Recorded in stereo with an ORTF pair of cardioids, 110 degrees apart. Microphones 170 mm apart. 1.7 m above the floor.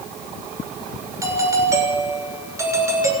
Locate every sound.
1.2 s a doorbell: 20° right, 7 m